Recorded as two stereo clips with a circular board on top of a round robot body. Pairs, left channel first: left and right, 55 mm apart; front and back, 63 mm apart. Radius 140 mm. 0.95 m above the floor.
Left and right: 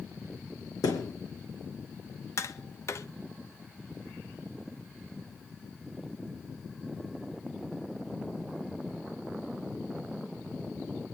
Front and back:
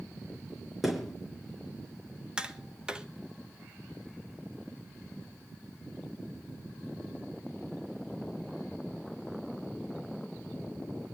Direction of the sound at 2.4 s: 105° left.